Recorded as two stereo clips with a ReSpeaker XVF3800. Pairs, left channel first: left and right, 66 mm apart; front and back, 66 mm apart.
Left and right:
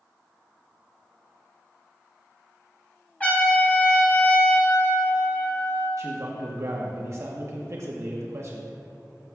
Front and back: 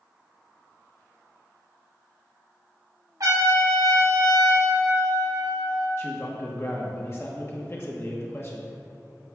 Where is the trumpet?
160° left, 3 m.